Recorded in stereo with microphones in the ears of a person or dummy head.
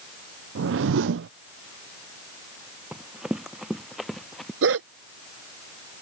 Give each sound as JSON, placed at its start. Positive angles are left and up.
{"t": 0.6, "sound": "a whoosh", "side_deg": -75}
{"t": 2.9, "sound": "running footsteps", "side_deg": -5}
{"t": 4.6, "sound": "a dog barking", "side_deg": -75}